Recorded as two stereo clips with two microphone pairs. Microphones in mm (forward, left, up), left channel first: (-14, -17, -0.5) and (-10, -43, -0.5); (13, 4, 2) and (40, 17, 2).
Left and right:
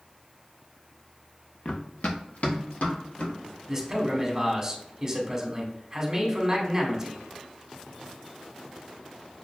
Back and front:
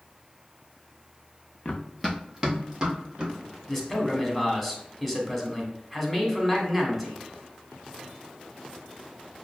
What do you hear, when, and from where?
1.6 s running footsteps: 145° left, 0.6 m; by 3.3 s 85° left, 1.9 m
3.7 s a man speaking: 75° right, 1.0 m